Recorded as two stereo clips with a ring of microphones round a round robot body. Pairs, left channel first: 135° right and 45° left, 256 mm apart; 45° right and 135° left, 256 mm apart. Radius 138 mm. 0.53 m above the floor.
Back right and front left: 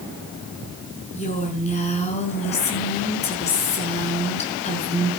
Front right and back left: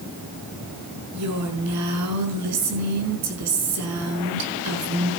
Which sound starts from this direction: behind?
A woman speaking, at 1.1 s.